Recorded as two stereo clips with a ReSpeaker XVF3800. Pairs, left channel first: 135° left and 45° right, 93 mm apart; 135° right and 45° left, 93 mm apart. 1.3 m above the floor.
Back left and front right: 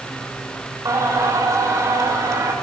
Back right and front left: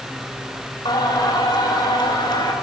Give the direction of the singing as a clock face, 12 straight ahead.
3 o'clock.